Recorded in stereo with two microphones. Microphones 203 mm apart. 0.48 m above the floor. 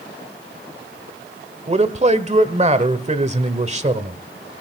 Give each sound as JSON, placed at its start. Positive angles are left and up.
{"t": 1.7, "sound": "a man speaking", "side_deg": -35, "distance_m": 1.4}